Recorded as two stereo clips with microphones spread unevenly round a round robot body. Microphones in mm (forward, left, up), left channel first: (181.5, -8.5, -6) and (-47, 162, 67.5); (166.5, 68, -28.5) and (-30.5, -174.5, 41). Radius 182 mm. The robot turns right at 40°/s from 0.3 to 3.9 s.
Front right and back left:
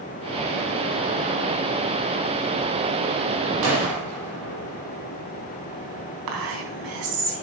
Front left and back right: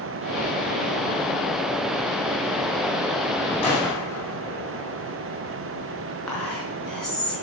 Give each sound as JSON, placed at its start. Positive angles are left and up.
{"t": 3.6, "sound": "a gunshot", "azimuth_deg": 130, "distance_m": 5.5}
{"t": 6.3, "sound": "whispering", "azimuth_deg": 135, "distance_m": 4.0}